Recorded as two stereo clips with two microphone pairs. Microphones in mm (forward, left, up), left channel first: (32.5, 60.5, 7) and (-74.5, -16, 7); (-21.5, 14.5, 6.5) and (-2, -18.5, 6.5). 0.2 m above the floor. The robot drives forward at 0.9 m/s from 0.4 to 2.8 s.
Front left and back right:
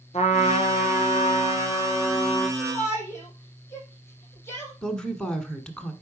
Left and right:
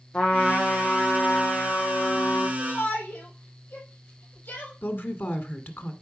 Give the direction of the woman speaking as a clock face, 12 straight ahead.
8 o'clock.